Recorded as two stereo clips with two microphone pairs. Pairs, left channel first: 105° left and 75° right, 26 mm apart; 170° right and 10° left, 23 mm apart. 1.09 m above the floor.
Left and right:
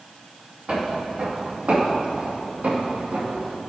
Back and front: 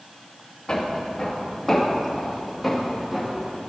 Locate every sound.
0.7 s footsteps: 120° right, 3 m; by 3.6 s 75° right, 3.5 m